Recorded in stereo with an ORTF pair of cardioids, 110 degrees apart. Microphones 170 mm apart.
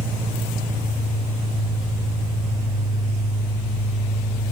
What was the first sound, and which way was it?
An engine running, 25° right.